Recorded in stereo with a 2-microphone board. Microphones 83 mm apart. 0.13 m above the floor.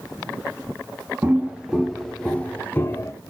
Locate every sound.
1.2 s footsteps: 20° right (ahead or behind), 1.6 m; by 3.1 s 35° left (ahead or behind), 1.8 m